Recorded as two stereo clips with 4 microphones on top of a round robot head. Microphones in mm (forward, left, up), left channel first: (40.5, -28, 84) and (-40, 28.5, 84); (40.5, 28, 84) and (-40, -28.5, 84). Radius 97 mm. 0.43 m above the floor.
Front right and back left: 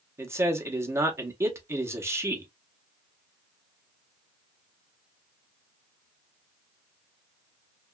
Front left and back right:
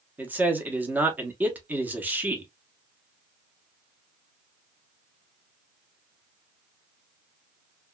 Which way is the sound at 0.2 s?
165° left.